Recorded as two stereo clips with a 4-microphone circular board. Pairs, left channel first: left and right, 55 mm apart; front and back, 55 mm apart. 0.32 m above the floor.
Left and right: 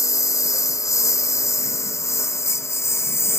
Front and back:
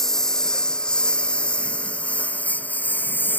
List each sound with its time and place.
0.0 s a lawn mower: 80° left; by 3.4 s 55° left